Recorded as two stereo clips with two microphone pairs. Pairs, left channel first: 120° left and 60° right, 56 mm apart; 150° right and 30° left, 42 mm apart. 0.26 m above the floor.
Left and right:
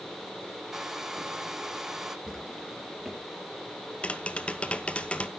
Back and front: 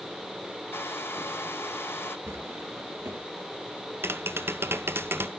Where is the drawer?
20° left, 3 m.